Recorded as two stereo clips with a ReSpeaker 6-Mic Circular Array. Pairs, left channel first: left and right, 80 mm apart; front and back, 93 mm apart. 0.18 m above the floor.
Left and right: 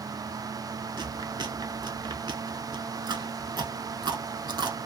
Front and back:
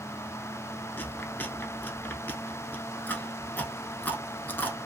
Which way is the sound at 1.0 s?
70° right.